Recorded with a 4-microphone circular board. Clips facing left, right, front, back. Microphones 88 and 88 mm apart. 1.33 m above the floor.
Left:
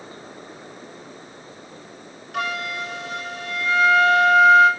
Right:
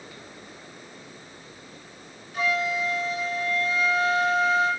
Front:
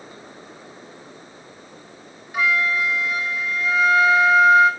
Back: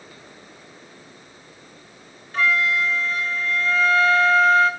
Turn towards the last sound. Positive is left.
turn(degrees=80)